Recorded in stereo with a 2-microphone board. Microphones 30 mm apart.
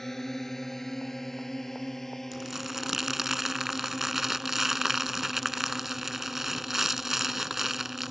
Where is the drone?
15° left (ahead or behind).